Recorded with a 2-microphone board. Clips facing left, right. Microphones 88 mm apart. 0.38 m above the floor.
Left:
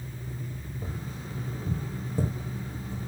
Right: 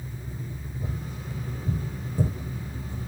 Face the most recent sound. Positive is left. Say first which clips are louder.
# right 3 dB
turn(degrees=30)  # may be behind; listen again after turning